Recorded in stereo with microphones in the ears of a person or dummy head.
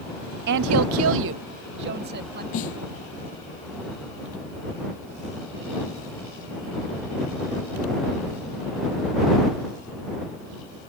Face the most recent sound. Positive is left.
turn(degrees=40)  # may be behind; listen again after turning